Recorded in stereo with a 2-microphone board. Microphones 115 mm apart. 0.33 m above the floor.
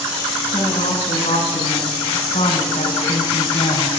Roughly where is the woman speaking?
Left.